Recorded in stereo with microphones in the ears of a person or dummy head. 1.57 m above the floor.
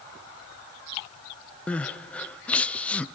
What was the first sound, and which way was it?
Crying, 10° left (ahead or behind).